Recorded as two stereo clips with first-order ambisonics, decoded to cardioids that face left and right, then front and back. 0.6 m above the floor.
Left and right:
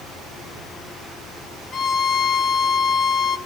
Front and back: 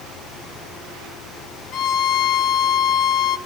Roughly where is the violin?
Ahead left.